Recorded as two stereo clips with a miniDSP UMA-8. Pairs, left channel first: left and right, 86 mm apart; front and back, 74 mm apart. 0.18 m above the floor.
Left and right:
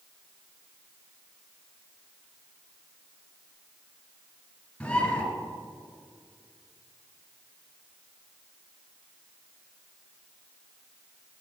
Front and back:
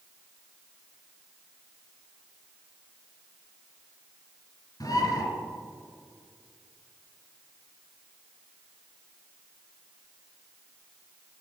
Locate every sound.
4.8 s a bird: 10° left, 1.8 m